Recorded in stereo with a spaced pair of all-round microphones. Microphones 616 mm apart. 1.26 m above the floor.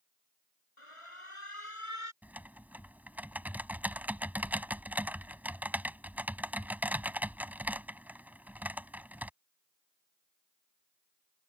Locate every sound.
0.8 s an alarm: 55° left (ahead or behind)
2.2 s typing on a keyboard: 5° right (ahead or behind)